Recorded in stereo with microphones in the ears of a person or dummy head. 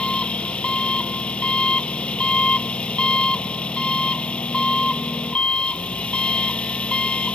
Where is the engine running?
10° left (ahead or behind).